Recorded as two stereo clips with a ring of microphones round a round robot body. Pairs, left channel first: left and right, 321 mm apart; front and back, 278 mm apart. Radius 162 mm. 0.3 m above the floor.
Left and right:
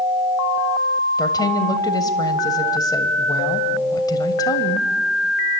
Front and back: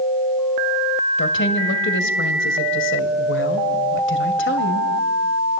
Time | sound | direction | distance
1.2 | a woman speaking | 15° left | 2.0 m